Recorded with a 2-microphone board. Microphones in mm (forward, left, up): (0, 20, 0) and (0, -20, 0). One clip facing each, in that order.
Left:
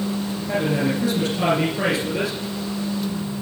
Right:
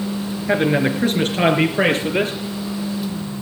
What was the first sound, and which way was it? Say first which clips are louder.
A man speaking: right 5 dB; 60° right (ahead or behind).